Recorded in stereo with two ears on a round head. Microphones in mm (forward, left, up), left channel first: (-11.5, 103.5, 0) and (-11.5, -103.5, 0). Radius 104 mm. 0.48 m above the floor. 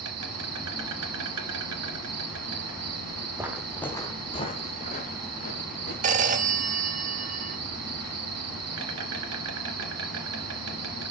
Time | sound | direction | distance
0.0 | an insect | 80° right | 2 m
3.4 | footsteps | 15° right (ahead or behind) | 1.0 m
6.0 | a phone ringing | 35° right (ahead or behind) | 0.9 m